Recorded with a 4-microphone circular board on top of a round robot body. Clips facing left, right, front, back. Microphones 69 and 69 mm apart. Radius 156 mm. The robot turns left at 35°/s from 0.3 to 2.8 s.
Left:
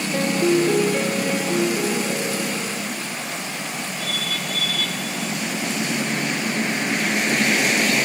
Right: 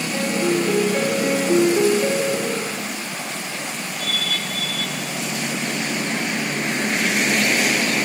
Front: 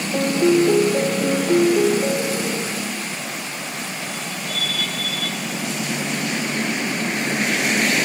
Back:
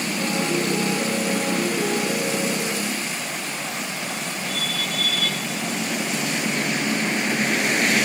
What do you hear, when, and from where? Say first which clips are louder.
0.1 s a piano: left 2 dB, front 10 dB; 15° left, 3.5 m; by 2.7 s 65° right, 3.5 m